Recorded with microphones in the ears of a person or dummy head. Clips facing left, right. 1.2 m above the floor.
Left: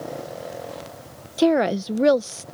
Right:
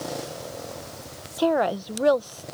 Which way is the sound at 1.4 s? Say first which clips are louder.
Left 4 dB; 30° left (ahead or behind).